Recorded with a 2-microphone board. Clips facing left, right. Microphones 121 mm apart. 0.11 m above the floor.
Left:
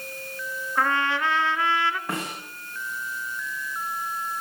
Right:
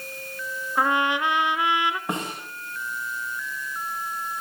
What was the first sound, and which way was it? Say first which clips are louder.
A trumpet: right 2 dB; 15° right (ahead or behind).